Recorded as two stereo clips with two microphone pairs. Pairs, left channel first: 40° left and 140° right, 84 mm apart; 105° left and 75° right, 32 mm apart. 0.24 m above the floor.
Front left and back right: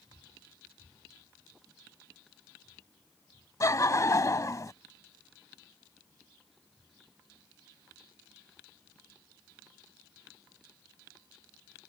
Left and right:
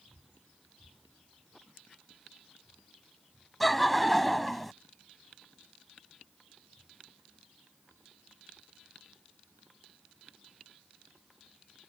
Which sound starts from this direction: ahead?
Laughter, at 3.6 s.